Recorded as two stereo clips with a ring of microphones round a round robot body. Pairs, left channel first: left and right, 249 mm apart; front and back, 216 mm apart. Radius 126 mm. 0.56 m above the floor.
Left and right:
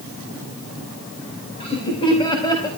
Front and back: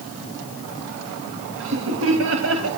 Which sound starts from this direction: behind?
Laughter, at 1.6 s.